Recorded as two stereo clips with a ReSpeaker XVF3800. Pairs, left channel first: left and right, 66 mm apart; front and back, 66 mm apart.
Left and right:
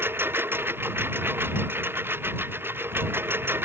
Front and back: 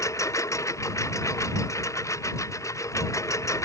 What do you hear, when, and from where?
0.0 s a lawn mower: 35° right